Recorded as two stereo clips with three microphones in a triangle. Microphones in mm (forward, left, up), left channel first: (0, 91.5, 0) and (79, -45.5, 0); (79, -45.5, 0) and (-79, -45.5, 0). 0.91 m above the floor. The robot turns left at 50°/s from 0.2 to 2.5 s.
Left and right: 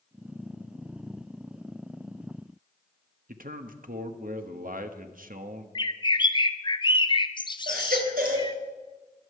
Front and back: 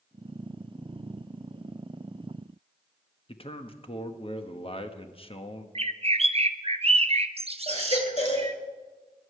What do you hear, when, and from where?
3.3 s a man speaking: 50° right, 1.1 m
5.8 s a bird: 160° left, 0.6 m
7.7 s a baby crying: 45° right, 3 m